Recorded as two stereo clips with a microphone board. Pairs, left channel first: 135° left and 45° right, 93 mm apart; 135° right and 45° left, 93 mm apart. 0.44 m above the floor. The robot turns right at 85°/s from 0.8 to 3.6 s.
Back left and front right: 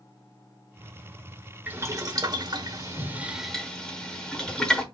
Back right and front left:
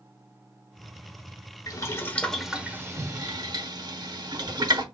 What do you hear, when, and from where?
1.7 s boiling: 110° right, 1.0 m; by 4.8 s 55° left, 1.0 m